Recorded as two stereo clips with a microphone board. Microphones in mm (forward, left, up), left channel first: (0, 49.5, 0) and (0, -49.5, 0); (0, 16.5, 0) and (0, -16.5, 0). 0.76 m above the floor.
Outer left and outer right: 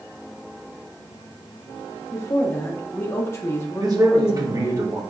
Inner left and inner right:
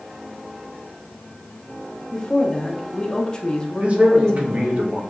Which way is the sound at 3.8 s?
40° right (ahead or behind).